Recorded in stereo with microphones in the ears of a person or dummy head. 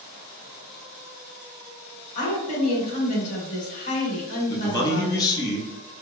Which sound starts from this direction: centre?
A man speaking, at 4.5 s.